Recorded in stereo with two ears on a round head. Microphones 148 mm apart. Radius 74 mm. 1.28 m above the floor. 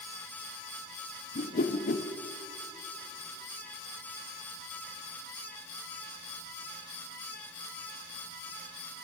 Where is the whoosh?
50° left (ahead or behind), 0.8 m.